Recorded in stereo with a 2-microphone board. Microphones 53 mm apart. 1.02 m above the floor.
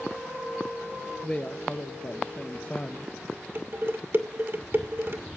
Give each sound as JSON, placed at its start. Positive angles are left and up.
{"t": 1.2, "sound": "a woman speaking", "side_deg": 25, "distance_m": 0.6}
{"t": 3.5, "sound": "dishes clattering", "side_deg": -50, "distance_m": 1.9}